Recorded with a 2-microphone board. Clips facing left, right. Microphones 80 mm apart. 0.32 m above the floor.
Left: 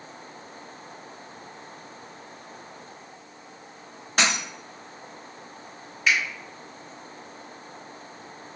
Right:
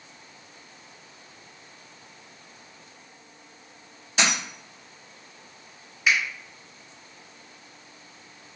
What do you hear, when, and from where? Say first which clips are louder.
4.2 s a dropped coin: left 1 dB; 50° left (ahead or behind), 1.8 m
6.1 s a finger snap: even; 10° right (ahead or behind), 1.5 m